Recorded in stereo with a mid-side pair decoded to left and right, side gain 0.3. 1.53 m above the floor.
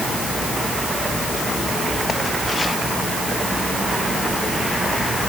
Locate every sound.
Only background noise.